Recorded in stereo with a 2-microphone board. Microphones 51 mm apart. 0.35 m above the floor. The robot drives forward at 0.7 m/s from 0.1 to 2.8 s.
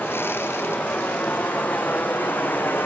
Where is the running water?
30° left (ahead or behind), 7 m; by 2.9 s 40° left (ahead or behind), 5.5 m.